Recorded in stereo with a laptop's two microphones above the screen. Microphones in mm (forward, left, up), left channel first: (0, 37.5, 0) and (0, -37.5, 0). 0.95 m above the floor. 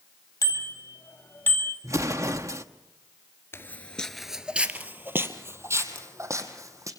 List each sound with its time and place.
0.4 s a bicycle bell: 45° left (ahead or behind), 3.5 m; by 1.7 s 25° left (ahead or behind), 3 m
1.8 s an explosion: 40° right (ahead or behind), 1.0 m
3.5 s footsteps: 35° left (ahead or behind), 1.0 m; by 6.9 s 45° right (ahead or behind), 3 m